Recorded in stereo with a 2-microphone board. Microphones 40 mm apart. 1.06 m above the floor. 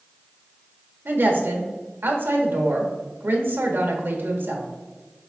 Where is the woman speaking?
60° right (ahead or behind), 1.0 m.